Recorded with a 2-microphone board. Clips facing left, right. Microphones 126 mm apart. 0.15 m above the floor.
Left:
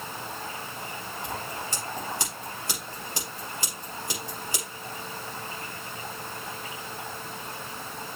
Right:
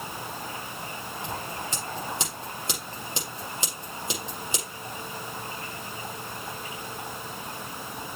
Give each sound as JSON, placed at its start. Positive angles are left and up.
{"t": 1.2, "sound": "scissors", "side_deg": -20, "distance_m": 6.5}